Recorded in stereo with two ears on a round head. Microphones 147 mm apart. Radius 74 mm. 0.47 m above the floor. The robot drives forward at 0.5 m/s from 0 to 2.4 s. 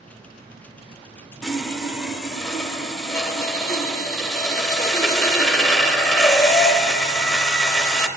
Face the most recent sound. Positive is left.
turn(degrees=0)  # may be behind; listen again after turning